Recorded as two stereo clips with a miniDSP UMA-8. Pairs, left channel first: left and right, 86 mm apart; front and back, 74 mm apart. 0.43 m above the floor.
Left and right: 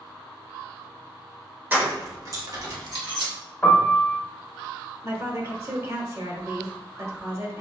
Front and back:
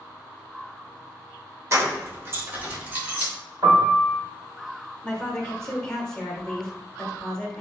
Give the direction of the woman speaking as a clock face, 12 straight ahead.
2 o'clock.